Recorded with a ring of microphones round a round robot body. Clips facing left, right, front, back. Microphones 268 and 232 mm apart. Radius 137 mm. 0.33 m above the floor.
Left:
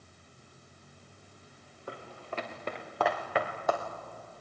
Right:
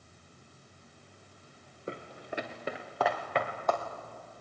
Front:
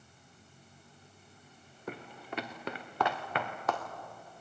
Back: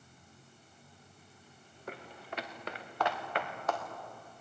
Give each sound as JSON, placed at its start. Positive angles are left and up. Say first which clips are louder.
{"t": 1.9, "sound": "footsteps", "louder": "right 2 dB, front 3 dB", "azimuth_deg": -20, "distance_m": 1.9}